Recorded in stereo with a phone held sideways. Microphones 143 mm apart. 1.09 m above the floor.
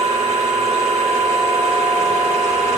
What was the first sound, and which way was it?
A machine running, 45° right (ahead or behind).